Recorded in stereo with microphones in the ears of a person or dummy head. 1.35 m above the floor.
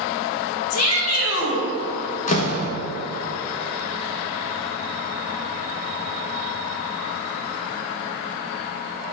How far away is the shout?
About 1.8 m.